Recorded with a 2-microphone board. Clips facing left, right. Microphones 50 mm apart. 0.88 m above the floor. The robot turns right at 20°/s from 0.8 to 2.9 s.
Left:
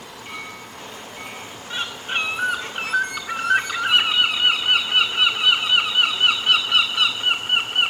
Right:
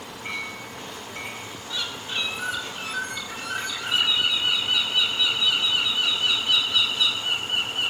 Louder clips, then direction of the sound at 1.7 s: Left 5 dB; 40° left (ahead or behind).